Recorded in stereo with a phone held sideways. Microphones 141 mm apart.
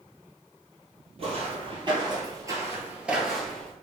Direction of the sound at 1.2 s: 45° right (ahead or behind).